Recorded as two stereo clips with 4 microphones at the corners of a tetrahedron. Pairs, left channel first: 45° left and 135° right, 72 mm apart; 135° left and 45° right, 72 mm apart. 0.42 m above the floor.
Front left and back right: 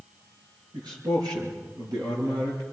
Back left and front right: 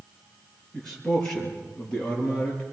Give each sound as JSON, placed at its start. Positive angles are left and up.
{"t": 0.7, "sound": "a man speaking", "azimuth_deg": -145, "distance_m": 7.0}